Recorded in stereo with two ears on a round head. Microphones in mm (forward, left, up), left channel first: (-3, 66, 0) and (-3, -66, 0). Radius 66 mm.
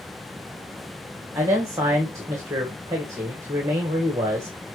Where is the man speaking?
20° right (ahead or behind), 1.7 m.